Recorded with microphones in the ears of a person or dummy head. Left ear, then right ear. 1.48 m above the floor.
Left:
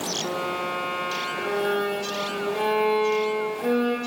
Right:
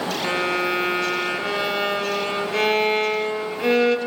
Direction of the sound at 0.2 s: 60° right (ahead or behind).